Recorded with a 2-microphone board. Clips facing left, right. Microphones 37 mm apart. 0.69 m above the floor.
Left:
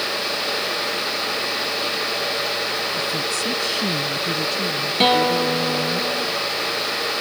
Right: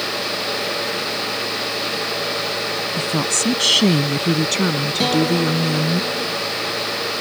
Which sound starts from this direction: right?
A woman speaking, at 3.0 s.